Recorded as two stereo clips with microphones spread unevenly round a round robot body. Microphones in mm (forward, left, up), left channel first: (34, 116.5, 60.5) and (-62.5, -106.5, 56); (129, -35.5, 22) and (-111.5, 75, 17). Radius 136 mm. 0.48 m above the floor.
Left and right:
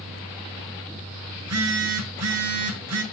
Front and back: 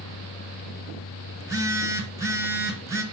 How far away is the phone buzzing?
About 2.0 m.